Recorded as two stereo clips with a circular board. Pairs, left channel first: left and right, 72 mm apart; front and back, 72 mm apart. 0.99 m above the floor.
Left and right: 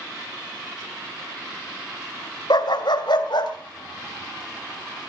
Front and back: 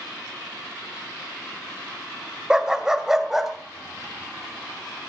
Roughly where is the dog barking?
Left.